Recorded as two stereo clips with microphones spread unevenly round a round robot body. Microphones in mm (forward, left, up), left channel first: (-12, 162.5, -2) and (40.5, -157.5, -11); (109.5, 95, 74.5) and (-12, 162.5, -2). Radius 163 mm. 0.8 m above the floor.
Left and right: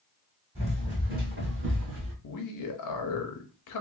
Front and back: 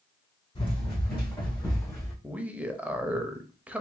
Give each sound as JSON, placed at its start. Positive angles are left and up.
{"t": 0.6, "sound": "running footsteps", "azimuth_deg": -10, "distance_m": 1.7}
{"t": 2.2, "sound": "a man speaking", "azimuth_deg": 105, "distance_m": 0.7}